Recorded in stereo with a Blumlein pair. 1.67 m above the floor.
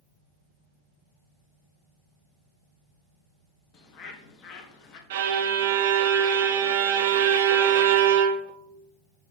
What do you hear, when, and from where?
3.7 s a bird: 35° left, 1.0 m
5.1 s a violin: 55° right, 0.7 m